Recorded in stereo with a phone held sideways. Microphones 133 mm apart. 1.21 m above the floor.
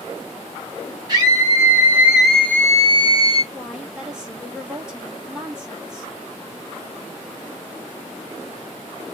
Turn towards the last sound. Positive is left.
turn(degrees=-5)  # may be behind; listen again after turning